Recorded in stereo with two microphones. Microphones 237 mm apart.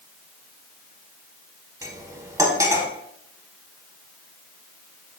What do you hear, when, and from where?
1.8 s cutlery clinking: 15° right (ahead or behind), 0.7 m